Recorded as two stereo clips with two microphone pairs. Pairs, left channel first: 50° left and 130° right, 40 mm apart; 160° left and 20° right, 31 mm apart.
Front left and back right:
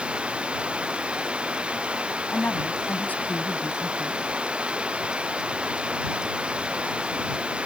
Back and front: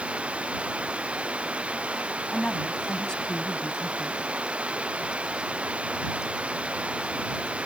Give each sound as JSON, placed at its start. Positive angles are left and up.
{"t": 0.0, "sound": "running water", "azimuth_deg": -70}
{"t": 2.3, "sound": "a woman speaking", "azimuth_deg": 95}